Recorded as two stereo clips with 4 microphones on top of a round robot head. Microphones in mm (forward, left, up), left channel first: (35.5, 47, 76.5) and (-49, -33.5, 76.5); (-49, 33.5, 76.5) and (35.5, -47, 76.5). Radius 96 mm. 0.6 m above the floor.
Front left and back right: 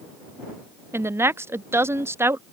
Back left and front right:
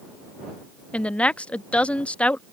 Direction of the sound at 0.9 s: 160° right.